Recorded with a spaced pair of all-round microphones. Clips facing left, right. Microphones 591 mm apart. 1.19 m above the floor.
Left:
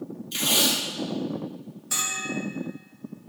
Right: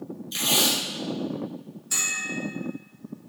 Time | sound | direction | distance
0.3 | tape being pulled | 50° left (ahead or behind) | 2.5 m
1.9 | a bell | 75° left (ahead or behind) | 1.7 m